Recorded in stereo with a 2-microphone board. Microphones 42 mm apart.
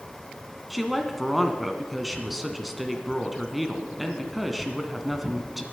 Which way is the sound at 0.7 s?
5° right (ahead or behind).